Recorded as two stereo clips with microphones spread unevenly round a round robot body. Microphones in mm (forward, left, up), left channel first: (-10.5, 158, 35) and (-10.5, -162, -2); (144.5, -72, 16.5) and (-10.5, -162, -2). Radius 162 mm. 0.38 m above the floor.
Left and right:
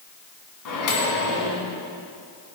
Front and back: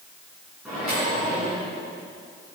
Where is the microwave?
120° left, 3 m.